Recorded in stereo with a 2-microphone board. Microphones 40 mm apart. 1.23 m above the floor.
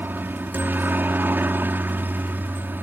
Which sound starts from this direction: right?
A helicopter, at 0.0 s.